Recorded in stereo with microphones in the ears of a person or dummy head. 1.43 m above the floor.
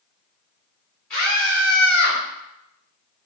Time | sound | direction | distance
1.1 | a scream | 5° left (ahead or behind) | 0.9 m